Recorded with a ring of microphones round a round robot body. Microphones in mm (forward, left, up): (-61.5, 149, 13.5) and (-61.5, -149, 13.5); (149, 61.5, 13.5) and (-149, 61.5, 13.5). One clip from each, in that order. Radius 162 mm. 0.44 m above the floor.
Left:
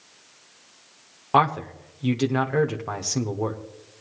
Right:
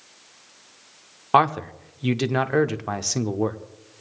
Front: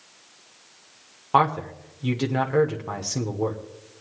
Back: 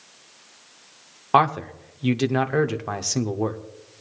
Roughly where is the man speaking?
Behind right.